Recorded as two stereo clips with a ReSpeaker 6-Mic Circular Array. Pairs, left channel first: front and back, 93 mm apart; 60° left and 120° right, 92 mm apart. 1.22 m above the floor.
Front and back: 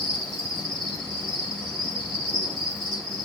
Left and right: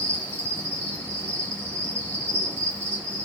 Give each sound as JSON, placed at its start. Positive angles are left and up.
{"t": 0.0, "sound": "an insect", "azimuth_deg": 180, "distance_m": 2.0}